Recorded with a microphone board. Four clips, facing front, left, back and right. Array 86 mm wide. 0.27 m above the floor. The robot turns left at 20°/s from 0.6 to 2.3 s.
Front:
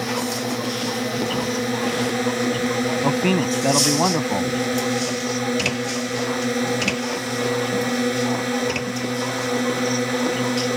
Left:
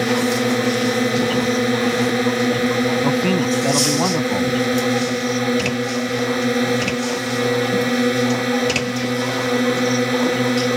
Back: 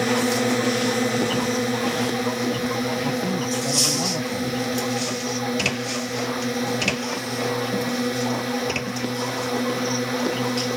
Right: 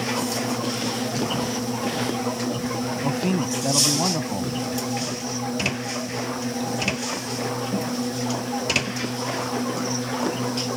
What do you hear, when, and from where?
0.0 s a drone: 110° left; by 10.8 s 75° left
3.0 s a man speaking: 25° left